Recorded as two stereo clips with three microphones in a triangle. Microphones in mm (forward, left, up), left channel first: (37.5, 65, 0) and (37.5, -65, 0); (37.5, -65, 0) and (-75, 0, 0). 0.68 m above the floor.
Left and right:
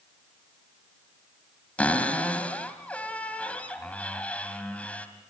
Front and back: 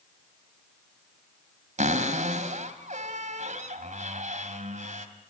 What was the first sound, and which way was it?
A cupboard door, 170° left.